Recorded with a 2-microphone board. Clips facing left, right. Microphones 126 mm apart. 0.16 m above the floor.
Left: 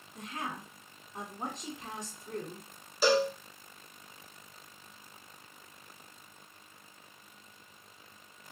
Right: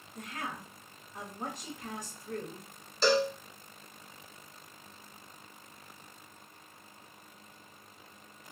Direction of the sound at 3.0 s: 10° left (ahead or behind).